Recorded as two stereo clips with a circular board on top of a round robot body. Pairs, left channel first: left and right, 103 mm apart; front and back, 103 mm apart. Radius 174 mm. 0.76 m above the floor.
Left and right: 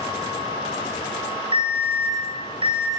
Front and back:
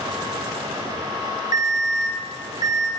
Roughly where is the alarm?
Behind right.